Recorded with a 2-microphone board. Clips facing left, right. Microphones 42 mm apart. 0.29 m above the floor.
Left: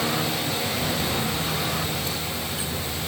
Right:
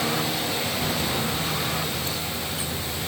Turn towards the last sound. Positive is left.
No sound to turn to.